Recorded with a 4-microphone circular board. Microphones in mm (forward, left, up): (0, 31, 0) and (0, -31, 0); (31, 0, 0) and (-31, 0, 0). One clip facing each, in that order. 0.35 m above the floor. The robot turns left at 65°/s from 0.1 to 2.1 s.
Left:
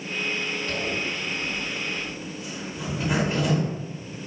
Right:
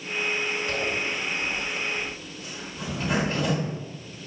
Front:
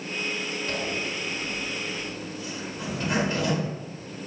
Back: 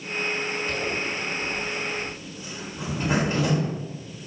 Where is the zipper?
95° right, 1.4 m; by 3.7 s 170° left, 1.4 m.